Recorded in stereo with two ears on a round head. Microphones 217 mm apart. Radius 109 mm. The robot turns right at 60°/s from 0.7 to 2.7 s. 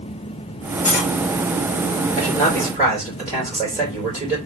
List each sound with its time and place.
0.8 s cutlery clinking: 60° left (ahead or behind), 1.4 m; by 1.1 s 45° left (ahead or behind), 1.4 m
2.2 s a man speaking: 160° left, 2.5 m; by 4.4 s 165° right, 2.5 m